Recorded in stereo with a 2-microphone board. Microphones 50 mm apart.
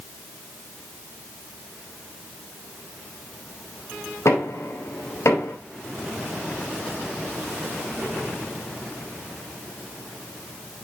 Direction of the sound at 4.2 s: 75° left (ahead or behind).